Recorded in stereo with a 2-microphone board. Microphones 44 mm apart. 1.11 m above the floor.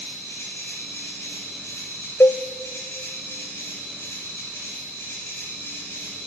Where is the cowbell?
65° left (ahead or behind), 0.5 m.